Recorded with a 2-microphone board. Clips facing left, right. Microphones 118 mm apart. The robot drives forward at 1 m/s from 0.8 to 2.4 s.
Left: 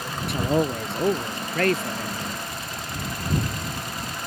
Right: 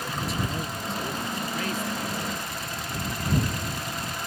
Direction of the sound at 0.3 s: 65° left (ahead or behind).